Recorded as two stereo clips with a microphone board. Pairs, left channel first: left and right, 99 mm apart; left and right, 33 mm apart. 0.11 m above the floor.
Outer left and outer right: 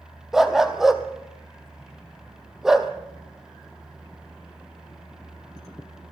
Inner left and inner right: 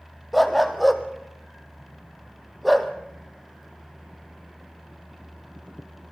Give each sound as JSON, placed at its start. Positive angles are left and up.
{"t": 0.3, "sound": "a dog barking", "side_deg": -5, "distance_m": 1.6}